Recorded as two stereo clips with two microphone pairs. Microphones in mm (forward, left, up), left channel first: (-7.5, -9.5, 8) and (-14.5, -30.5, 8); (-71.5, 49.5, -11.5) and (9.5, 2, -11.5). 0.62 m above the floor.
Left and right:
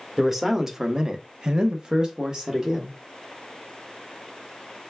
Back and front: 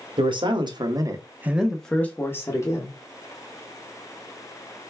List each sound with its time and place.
0.2 s a man speaking: 30° right, 1.0 m; by 3.0 s 165° right, 1.2 m